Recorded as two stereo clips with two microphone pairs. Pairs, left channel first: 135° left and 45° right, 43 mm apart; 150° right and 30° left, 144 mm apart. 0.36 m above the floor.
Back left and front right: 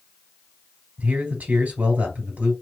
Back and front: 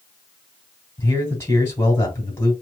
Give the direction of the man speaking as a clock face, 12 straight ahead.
3 o'clock.